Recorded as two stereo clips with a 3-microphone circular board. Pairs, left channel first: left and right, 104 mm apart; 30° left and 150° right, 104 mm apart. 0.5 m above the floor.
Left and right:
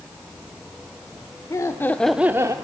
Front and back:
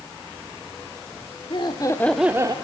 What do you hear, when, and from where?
1.5 s laughter: 40° left, 1.2 m; by 2.5 s 125° right, 0.9 m